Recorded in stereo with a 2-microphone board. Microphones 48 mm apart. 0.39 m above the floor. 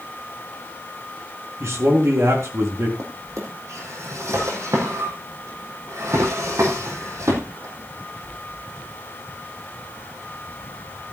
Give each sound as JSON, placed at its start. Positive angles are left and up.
{"t": 1.6, "sound": "a man speaking", "side_deg": -65, "distance_m": 4.0}
{"t": 3.0, "sound": "a drawer", "side_deg": -80, "distance_m": 4.0}